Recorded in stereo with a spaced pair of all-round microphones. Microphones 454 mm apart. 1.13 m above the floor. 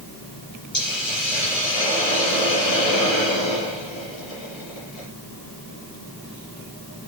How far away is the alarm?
I don't hear an alarm.